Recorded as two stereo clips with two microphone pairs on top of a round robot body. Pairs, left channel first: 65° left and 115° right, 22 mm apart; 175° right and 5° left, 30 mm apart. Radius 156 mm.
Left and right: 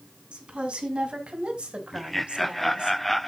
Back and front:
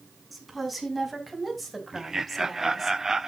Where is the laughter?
10° right, 0.8 m.